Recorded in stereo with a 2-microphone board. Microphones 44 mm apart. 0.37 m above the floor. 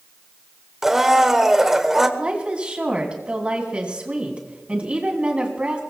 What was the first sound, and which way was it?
A blender, 10° right (ahead or behind).